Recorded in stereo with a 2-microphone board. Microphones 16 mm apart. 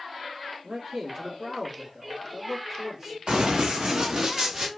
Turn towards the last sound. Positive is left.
turn(degrees=-35)  # may be behind; listen again after turning